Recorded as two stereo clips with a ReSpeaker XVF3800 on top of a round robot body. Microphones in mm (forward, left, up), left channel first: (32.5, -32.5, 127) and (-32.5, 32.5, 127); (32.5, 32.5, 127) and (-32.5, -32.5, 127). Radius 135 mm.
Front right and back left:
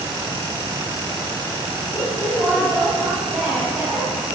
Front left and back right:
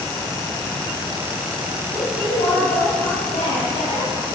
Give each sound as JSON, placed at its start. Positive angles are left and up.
{"t": 1.9, "sound": "a woman speaking", "azimuth_deg": 60, "distance_m": 4.0}